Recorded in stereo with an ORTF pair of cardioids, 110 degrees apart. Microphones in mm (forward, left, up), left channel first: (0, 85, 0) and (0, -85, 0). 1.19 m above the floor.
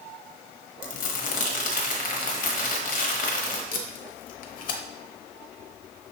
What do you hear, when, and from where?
0.8 s crumpling: 55° left, 1.0 m
3.7 s tape being pulled: 55° left, 0.8 m